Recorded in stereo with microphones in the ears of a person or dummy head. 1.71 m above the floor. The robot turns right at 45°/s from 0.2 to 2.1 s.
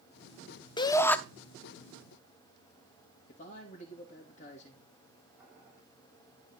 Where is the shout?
25° left (ahead or behind), 0.8 m; by 1.2 s 5° left (ahead or behind), 0.8 m.